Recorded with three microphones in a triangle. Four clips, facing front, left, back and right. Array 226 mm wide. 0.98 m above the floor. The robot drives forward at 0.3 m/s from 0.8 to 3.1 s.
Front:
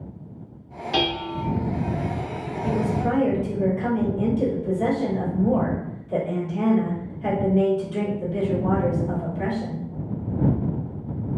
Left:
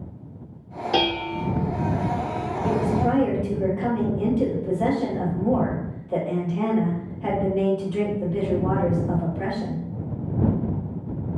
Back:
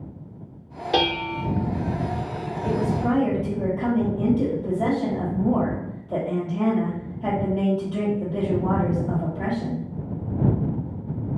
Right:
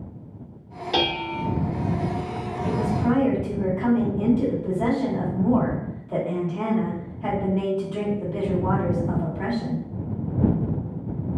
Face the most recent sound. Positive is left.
turn(degrees=180)